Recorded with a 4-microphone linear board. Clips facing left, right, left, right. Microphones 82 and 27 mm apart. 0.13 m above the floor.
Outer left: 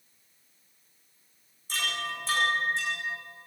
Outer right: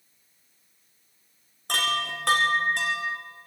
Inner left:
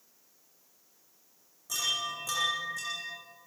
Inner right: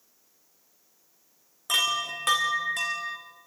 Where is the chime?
70° right (ahead or behind), 4.5 m.